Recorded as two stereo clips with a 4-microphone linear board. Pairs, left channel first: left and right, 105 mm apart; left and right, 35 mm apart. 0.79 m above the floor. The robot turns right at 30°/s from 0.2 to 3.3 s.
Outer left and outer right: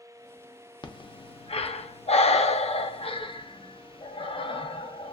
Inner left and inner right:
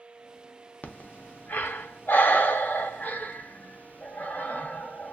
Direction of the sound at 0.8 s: 45° left (ahead or behind).